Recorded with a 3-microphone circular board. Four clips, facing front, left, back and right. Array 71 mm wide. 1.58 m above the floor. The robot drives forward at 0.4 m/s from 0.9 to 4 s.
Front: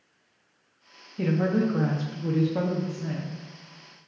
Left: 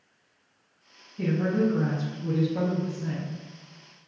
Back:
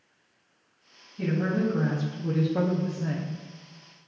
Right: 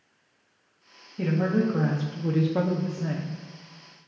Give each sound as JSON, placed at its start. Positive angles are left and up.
{"t": 1.2, "sound": "a woman speaking", "azimuth_deg": -30, "distance_m": 0.7}